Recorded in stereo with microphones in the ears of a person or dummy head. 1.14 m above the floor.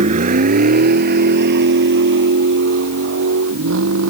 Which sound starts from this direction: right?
A vehicle, at 0.0 s.